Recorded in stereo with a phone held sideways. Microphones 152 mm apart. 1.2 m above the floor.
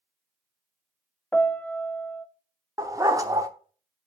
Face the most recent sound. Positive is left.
turn(degrees=-20)  # may be behind; listen again after turning